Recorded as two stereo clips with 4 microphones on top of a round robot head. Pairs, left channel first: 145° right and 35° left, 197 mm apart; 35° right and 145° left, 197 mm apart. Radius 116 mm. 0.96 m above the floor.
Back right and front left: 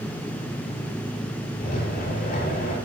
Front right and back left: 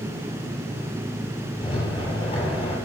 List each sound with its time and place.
1.6 s a rattle: 100° right, 7.5 m